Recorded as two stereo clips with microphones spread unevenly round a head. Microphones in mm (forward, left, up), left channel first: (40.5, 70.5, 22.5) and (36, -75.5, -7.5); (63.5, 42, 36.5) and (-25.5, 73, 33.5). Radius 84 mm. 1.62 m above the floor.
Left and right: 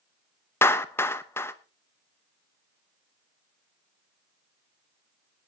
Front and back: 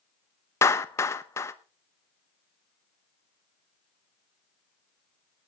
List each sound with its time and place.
0.6 s a clap: 30° left, 1.0 m